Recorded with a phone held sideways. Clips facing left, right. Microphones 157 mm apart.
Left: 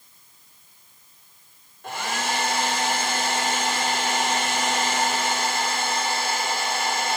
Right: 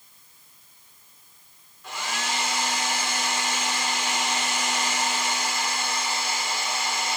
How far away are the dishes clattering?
No dishes clattering in this recording.